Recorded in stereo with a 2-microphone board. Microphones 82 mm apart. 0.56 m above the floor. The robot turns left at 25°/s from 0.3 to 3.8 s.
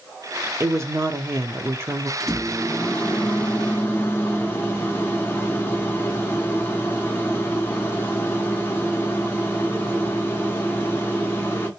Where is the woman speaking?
90° right, 0.8 m; by 2.1 s 130° right, 0.8 m.